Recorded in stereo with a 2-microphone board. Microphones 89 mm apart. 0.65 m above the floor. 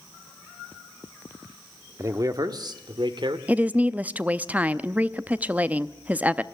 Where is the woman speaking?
15° right (ahead or behind), 0.6 m.